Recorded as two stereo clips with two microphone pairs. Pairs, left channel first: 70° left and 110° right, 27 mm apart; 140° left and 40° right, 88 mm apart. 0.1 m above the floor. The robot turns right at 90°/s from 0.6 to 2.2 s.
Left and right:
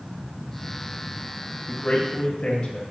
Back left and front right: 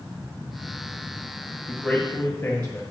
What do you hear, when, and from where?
1.7 s a man speaking: 50° left, 1.4 m; by 2.8 s 100° left, 1.4 m